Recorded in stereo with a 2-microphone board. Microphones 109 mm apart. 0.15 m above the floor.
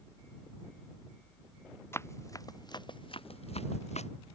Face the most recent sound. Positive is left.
turn(degrees=85)